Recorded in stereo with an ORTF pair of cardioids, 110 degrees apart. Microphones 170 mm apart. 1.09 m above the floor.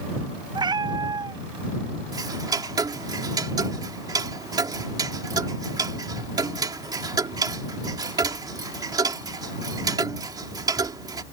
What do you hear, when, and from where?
0.6 s a cat meowing: 25° right
2.1 s ticking: 25° right